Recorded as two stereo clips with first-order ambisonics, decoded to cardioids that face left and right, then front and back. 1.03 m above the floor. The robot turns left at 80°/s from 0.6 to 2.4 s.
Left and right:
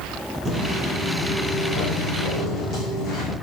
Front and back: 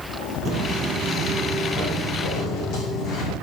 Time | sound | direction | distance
0.5 | footsteps | 145° right | 1.1 m